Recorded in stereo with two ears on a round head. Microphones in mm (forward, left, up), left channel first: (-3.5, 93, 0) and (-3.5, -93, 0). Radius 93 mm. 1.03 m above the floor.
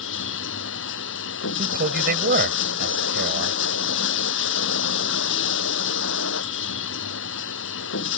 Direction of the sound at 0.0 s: 65° left (ahead or behind).